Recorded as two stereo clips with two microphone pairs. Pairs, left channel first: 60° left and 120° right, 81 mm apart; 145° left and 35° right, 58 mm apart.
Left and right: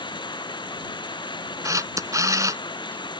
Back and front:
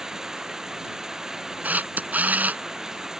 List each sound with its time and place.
0.0 s running water: 45° left
1.6 s a camera shutter: 90° right